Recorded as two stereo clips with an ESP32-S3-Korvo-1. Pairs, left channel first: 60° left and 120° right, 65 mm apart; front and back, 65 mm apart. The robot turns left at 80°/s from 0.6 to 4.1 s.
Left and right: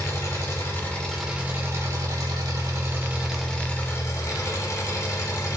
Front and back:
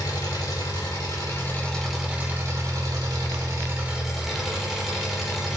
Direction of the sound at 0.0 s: 15° left.